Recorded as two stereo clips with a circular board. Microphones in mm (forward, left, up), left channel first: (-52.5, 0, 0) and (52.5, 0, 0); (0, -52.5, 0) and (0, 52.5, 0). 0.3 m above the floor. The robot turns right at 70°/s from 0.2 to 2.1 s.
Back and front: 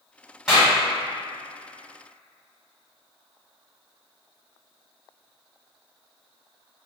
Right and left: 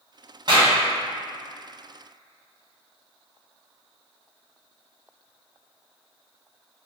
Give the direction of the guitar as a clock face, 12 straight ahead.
No guitar in this recording.